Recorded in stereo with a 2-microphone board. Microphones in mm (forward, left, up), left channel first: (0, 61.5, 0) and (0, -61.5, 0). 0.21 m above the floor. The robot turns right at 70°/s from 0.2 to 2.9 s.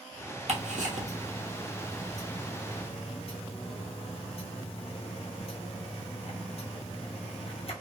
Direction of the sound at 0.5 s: 65° right (ahead or behind).